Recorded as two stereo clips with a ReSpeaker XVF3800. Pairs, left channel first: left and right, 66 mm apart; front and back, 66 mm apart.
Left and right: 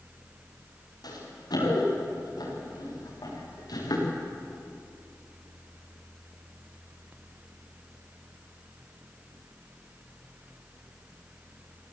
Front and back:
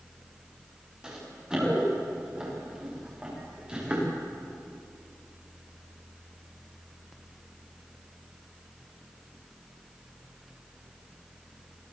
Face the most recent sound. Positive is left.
turn(degrees=105)